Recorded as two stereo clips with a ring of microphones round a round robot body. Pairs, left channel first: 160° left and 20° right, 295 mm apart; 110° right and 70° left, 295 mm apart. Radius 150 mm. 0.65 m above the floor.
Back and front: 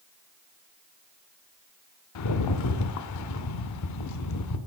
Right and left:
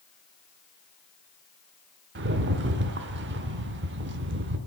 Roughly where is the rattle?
Behind left.